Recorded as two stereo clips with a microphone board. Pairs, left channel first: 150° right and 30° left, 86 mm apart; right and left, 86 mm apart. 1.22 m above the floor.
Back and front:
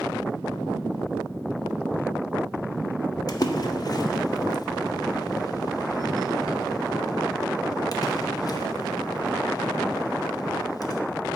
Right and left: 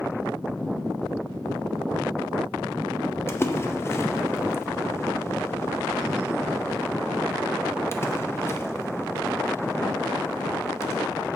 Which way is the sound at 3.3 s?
140° right.